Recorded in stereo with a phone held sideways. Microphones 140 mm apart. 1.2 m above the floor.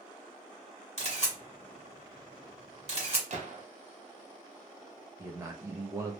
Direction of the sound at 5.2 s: 20° right (ahead or behind).